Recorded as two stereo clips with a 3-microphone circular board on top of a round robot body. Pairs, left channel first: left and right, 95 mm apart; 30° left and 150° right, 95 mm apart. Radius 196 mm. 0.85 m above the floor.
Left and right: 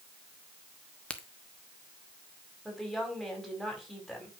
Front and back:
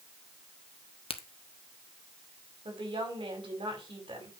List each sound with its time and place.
1.1 s a crack: 10° left, 1.4 m
2.6 s a woman speaking: straight behind, 6 m